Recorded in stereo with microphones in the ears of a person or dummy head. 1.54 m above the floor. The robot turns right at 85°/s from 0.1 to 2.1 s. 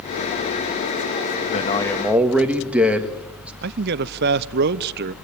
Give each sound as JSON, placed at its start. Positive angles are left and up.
{"t": 1.5, "sound": "a man speaking", "azimuth_deg": 140, "distance_m": 1.5}
{"t": 3.6, "sound": "a man speaking", "side_deg": -55, "distance_m": 0.7}